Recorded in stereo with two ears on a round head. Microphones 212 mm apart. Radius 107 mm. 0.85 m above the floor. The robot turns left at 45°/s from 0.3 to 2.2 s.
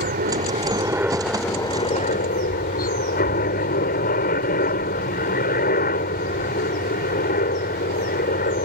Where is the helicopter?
140° right; by 8.7 s 135° left.